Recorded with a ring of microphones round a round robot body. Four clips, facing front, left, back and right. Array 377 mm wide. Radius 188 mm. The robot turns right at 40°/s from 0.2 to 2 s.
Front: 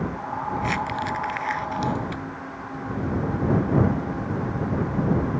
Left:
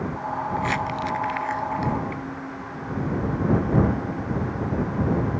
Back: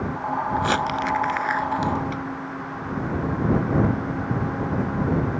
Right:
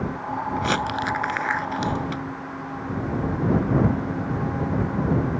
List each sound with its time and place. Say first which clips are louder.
0.6 s crumpling: right 4 dB, back 3 dB; 145° right; by 2.2 s 85° right